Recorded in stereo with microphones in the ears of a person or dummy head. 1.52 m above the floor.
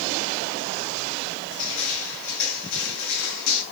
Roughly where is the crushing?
Left.